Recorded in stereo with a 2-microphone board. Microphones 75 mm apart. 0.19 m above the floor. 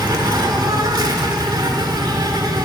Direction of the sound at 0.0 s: 65° right (ahead or behind).